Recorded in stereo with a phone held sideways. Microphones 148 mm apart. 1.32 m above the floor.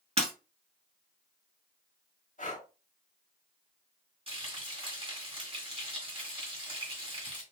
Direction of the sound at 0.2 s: 45° right (ahead or behind).